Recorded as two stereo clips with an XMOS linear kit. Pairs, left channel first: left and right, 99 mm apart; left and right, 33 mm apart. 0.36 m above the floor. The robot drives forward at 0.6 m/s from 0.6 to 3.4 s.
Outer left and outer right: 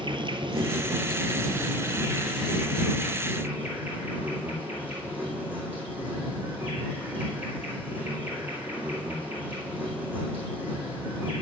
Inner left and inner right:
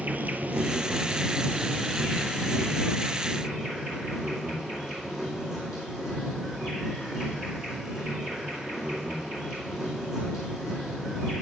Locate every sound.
0.0 s an insect: 55° right (ahead or behind), 0.7 m; by 11.4 s 15° right (ahead or behind), 2 m